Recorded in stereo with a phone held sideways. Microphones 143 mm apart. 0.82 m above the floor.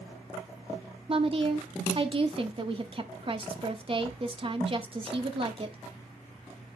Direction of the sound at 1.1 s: 40° right (ahead or behind).